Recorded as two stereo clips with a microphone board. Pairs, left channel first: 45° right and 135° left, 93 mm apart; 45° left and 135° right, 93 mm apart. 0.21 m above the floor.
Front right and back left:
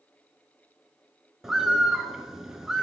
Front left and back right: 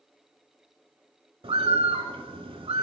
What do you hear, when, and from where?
1.4 s a bird: 140° right, 0.5 m